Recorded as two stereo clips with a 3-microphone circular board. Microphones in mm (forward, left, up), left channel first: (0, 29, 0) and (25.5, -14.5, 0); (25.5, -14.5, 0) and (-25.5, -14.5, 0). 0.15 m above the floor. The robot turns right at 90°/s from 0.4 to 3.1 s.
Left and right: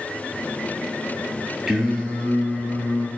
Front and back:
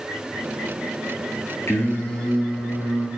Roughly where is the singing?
Ahead.